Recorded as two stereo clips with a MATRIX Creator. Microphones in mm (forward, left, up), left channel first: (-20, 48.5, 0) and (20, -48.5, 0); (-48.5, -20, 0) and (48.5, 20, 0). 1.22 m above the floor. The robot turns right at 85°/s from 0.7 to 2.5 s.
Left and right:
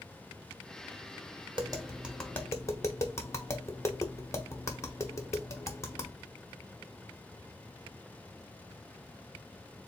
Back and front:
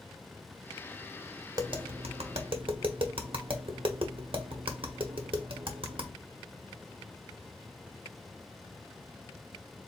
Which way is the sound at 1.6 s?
30° right.